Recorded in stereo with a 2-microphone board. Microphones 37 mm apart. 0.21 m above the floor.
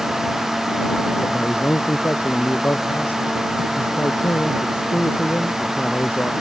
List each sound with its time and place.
1.2 s a man speaking: 80° left